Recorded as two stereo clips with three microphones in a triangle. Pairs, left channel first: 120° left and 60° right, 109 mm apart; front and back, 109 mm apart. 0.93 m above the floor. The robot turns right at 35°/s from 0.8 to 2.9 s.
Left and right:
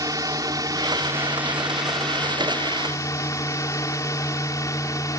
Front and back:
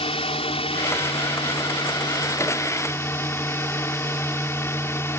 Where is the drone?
10° right; by 5.2 s 65° left.